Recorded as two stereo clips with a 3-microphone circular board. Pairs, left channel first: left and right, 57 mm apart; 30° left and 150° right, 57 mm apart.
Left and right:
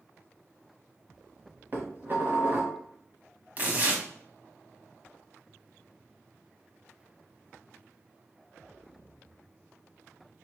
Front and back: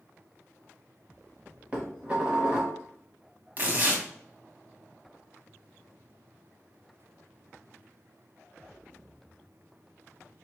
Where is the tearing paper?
125° right, 1.0 m.